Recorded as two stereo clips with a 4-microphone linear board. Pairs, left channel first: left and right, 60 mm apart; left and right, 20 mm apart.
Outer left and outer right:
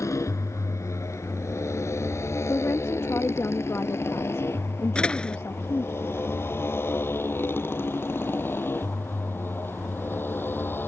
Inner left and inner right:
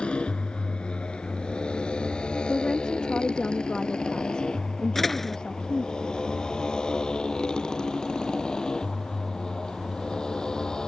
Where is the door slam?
15° left (ahead or behind).